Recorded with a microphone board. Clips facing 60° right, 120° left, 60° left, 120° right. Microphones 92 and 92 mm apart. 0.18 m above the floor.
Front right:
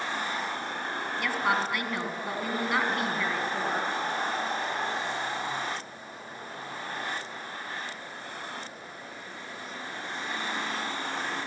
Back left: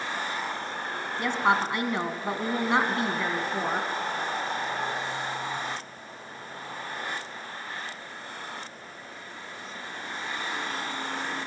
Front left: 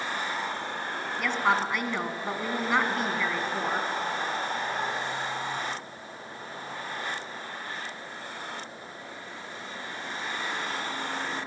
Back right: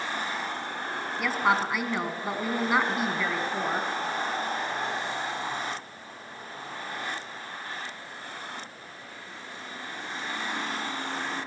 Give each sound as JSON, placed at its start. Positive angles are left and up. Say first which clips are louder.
{"t": 1.2, "sound": "a woman speaking", "louder": "back left 4 dB, back right 1 dB", "azimuth_deg": 155, "distance_m": 1.9}